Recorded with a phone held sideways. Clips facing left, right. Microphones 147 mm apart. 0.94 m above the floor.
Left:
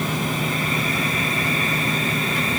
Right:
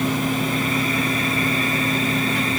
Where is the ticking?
No ticking in this recording.